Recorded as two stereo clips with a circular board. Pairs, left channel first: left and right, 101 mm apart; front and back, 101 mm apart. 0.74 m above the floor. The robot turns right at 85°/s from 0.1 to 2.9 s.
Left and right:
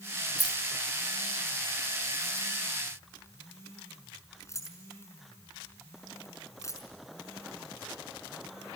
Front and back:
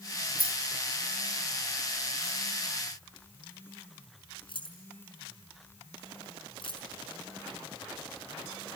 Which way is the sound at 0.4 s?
175° left.